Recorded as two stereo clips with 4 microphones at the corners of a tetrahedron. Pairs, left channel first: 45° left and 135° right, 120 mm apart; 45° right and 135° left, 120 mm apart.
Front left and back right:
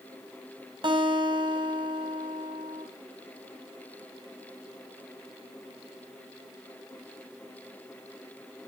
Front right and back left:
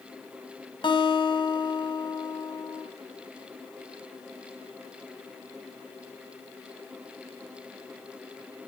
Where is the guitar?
90° right, 4.5 m.